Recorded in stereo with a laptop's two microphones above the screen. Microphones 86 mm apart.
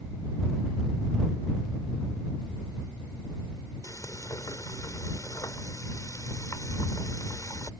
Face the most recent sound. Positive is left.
turn(degrees=40)  # may be behind; listen again after turning